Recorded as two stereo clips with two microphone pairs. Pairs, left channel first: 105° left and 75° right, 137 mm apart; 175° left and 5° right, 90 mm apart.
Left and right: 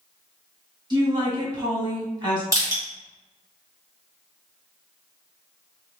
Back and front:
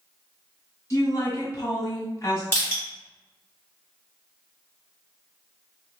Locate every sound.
0.9 s a woman speaking: 125° right, 1.5 m
2.5 s crushing: 125° right, 1.8 m